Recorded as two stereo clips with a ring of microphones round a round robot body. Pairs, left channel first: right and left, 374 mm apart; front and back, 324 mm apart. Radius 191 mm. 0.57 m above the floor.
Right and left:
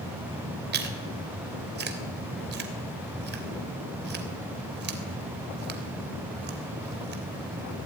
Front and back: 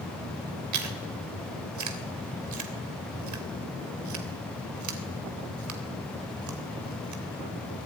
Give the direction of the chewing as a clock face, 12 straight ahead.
7 o'clock.